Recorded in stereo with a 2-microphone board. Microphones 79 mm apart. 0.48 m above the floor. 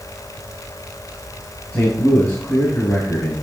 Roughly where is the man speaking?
Centre.